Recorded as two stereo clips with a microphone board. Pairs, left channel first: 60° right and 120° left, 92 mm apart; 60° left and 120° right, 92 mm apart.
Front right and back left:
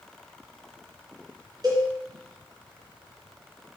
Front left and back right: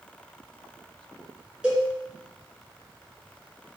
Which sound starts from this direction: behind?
A cowbell, at 1.6 s.